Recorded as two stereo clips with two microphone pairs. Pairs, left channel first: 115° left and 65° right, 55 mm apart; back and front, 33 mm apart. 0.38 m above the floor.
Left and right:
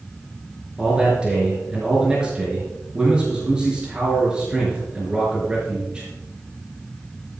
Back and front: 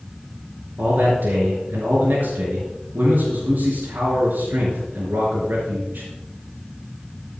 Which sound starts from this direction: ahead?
A man speaking, at 0.8 s.